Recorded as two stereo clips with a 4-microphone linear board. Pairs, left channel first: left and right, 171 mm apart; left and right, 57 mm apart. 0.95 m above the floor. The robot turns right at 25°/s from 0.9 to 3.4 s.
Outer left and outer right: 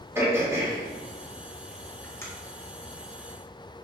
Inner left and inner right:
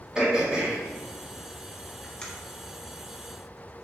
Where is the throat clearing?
15° right (ahead or behind), 2 m; by 2.2 s 15° left (ahead or behind), 2 m.